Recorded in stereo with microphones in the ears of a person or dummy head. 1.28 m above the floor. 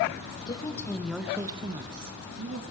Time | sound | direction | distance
0.5 | a woman speaking | 30° left (ahead or behind) | 1.4 m